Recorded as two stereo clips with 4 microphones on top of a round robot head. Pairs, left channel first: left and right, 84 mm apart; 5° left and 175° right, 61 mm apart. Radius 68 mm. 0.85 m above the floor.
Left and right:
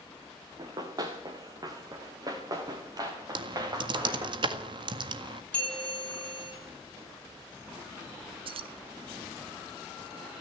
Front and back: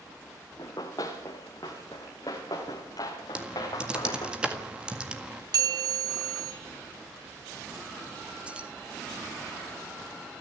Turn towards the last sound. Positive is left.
turn(degrees=-100)